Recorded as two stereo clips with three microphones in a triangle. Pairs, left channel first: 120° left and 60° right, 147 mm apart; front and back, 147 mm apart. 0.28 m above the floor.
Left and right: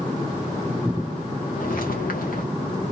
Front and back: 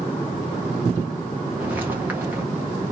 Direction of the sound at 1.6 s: 100° left.